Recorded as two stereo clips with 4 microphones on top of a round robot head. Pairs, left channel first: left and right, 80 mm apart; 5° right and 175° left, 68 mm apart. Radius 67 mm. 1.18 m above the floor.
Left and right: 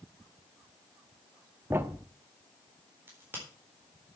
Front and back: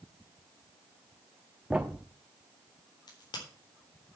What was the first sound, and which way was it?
A thud, 110° right.